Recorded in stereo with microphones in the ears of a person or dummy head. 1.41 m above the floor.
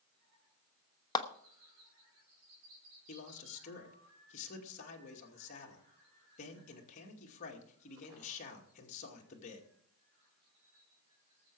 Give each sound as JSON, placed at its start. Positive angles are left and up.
{"t": 1.1, "sound": "a clap", "side_deg": 20, "distance_m": 1.0}
{"t": 3.1, "sound": "a man speaking", "side_deg": 45, "distance_m": 2.0}